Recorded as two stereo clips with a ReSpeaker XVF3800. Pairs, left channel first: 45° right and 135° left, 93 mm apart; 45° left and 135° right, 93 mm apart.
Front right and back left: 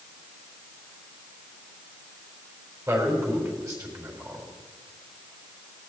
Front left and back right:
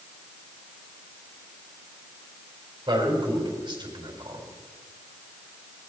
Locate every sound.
2.9 s a man speaking: 170° right, 4 m